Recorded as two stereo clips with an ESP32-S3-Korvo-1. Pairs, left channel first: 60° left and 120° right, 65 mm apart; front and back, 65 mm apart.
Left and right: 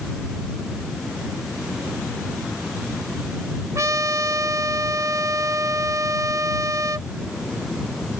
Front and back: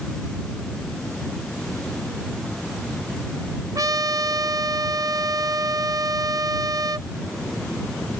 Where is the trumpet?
155° right.